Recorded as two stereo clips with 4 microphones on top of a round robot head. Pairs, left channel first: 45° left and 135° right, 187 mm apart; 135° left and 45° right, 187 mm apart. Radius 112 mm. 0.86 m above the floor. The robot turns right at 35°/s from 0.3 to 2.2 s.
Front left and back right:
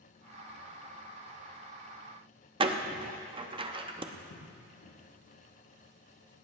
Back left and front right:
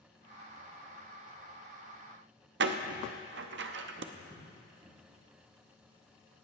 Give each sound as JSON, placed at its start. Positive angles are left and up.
{"t": 2.6, "sound": "a door slam", "azimuth_deg": -70, "distance_m": 0.9}
{"t": 4.1, "sound": "footsteps", "azimuth_deg": 35, "distance_m": 6.5}